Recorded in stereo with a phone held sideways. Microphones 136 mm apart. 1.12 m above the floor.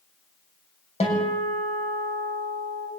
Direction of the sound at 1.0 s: 45° left (ahead or behind).